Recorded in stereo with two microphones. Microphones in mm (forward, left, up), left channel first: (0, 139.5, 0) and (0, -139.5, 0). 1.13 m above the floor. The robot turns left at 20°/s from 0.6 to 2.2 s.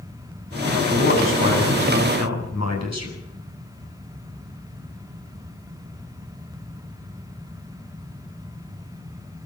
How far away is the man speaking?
About 8.5 m.